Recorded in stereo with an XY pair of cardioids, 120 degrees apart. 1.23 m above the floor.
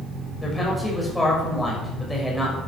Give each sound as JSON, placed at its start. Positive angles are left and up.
{"t": 0.4, "sound": "a woman speaking", "azimuth_deg": 10, "distance_m": 6.5}